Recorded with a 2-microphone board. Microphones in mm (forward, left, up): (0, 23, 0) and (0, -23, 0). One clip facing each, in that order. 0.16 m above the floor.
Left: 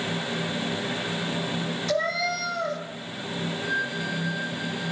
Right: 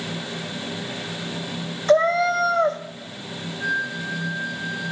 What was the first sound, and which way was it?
A cat meowing, 40° right (ahead or behind).